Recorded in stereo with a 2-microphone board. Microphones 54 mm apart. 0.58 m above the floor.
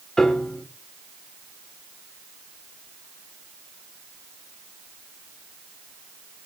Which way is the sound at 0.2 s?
10° left (ahead or behind).